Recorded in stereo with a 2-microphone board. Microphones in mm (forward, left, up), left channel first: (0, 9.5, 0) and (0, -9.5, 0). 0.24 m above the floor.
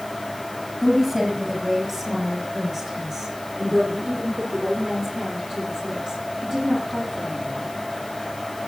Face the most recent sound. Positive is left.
turn(degrees=-45)  # may be behind; listen again after turning